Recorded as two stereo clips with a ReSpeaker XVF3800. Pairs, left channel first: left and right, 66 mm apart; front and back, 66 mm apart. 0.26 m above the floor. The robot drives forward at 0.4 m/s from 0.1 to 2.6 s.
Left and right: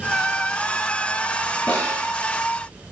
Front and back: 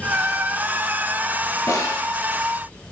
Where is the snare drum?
20° left, 0.8 m; by 2.1 s 25° left, 0.6 m.